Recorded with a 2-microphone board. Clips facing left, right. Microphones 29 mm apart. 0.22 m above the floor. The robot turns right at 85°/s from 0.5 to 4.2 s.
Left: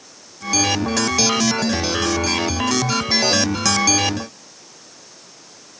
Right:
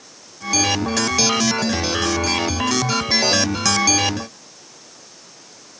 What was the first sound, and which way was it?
Only background noise.